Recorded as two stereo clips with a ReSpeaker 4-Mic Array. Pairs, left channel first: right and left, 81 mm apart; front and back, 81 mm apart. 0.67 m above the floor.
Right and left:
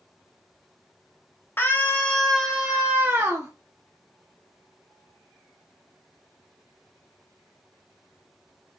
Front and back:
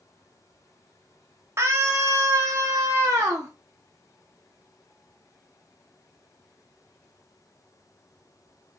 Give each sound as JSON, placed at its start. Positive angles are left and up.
{"t": 1.6, "sound": "a scream", "azimuth_deg": -140, "distance_m": 1.6}